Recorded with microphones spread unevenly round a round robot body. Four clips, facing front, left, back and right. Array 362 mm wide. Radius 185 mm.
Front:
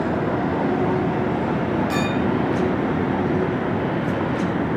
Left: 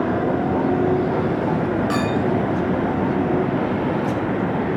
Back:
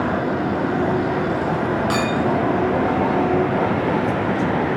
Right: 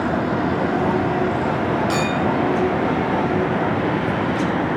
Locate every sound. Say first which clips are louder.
1.9 s a clink: even, back 2 dB; 175° left, 1.7 m